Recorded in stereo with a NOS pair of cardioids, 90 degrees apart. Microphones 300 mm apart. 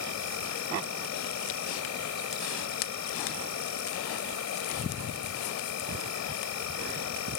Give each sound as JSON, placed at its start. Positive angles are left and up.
{"t": 0.0, "sound": "an insect", "azimuth_deg": 60}